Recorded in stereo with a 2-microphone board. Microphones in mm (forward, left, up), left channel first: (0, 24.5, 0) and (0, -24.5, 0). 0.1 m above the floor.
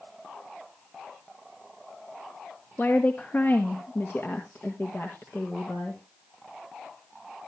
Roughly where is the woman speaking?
Left.